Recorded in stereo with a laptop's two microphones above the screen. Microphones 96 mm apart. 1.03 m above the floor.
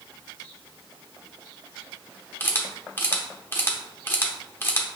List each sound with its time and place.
2.4 s a camera shutter: 20° left (ahead or behind), 0.7 m